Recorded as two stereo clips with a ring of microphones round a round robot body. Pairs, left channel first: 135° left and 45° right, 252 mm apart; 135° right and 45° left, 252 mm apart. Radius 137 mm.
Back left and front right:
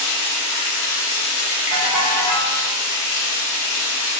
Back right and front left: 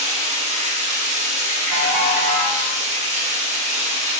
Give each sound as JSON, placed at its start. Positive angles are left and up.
{"t": 0.0, "sound": "running water", "azimuth_deg": 110, "distance_m": 1.0}
{"t": 1.7, "sound": "a ringtone", "azimuth_deg": 65, "distance_m": 1.7}